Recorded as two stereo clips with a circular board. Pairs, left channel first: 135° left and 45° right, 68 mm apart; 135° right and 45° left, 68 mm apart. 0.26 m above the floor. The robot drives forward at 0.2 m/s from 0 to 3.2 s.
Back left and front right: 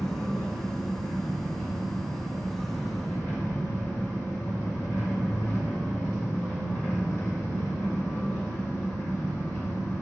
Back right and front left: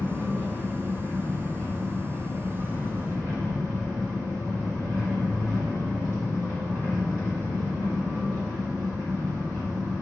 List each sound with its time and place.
0.0 s an engine running: 70° left, 2.0 m; by 10.0 s 90° left, 1.9 m